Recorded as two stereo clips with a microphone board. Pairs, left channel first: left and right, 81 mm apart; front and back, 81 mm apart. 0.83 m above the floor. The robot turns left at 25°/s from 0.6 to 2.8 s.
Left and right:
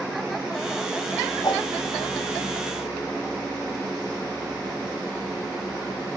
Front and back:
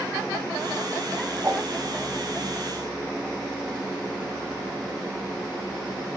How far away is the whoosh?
About 5 m.